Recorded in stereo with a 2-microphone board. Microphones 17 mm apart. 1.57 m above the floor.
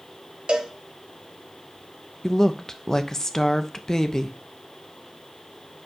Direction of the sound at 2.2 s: 25° left (ahead or behind).